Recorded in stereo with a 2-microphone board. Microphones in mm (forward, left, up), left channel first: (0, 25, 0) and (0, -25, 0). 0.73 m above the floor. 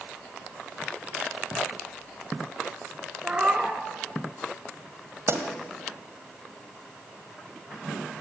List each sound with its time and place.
3.2 s a cat meowing: 25° right (ahead or behind), 1.9 m
5.3 s a pop: 60° right (ahead or behind), 2.0 m